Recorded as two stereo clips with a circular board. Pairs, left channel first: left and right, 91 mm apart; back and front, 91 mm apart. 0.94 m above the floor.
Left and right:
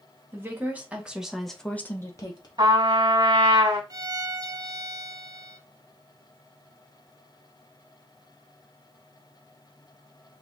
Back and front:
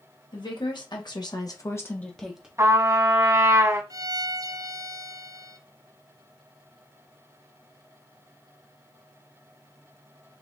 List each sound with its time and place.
0.3 s a woman speaking: 155° right, 1.8 m; by 2.5 s 80° left, 1.0 m
2.6 s a trumpet: 55° right, 1.6 m
3.9 s a violin: 45° right, 0.6 m